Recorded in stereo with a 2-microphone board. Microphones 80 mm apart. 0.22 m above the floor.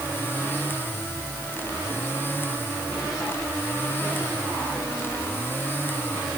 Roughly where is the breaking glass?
I don't hear breaking glass.